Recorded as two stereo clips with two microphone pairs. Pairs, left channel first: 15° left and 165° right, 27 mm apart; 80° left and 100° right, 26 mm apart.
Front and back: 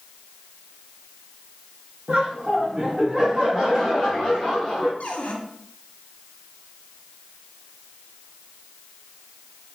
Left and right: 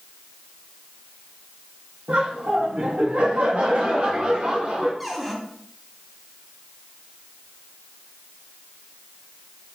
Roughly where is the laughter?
Right.